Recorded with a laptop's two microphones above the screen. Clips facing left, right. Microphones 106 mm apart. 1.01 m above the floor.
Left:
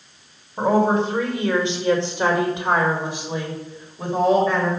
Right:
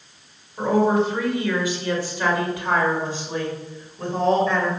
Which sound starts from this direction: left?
A woman speaking, at 0.6 s.